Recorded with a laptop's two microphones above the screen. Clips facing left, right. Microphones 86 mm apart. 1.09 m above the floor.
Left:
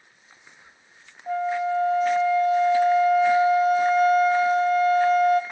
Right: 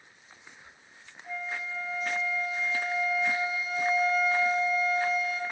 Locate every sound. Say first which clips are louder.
1.3 s a flute: left 13 dB; 65° left (ahead or behind), 0.8 m